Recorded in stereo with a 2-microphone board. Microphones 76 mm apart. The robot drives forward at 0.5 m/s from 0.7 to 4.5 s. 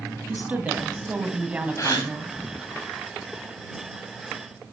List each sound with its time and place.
0.3 s a woman speaking: 20° right (ahead or behind), 1.7 m; by 2.3 s 15° right (ahead or behind), 2 m
1.8 s a gasp: 45° left (ahead or behind), 5 m